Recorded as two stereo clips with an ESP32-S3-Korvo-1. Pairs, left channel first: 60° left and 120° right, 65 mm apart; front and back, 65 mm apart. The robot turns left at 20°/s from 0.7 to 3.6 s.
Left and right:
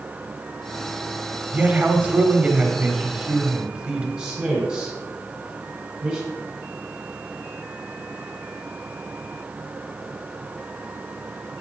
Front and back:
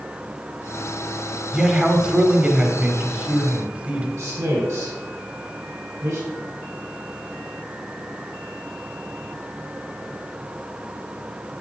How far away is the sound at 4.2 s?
About 2.5 m.